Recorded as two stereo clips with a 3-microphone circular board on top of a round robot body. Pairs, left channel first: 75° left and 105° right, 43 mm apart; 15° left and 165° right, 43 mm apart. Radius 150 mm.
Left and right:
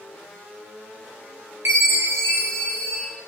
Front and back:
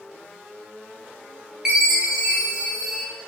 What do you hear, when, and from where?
1.6 s a chime: 90° right, 4.5 m